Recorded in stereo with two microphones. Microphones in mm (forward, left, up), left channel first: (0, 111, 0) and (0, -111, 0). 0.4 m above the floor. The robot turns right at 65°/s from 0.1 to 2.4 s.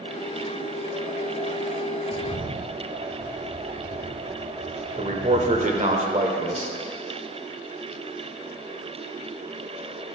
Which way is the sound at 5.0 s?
35° right (ahead or behind).